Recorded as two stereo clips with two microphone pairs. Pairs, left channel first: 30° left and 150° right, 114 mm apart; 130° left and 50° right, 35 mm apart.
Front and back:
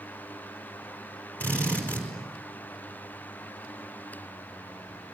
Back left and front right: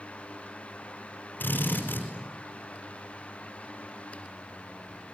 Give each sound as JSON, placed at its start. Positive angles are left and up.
{"t": 1.4, "sound": "a drill", "azimuth_deg": 110, "distance_m": 5.5}